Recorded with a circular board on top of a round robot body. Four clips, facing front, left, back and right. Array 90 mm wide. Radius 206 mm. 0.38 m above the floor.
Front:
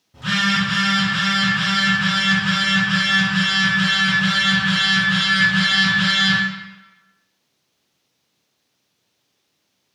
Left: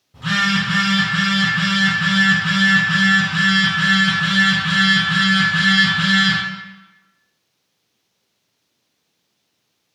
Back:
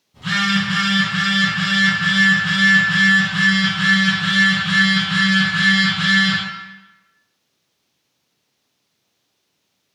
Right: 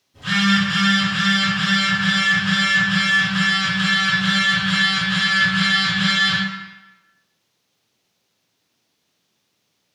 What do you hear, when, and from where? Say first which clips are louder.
0.1 s a phone buzzing: right 1 dB, back 1 dB; 45° left, 1.0 m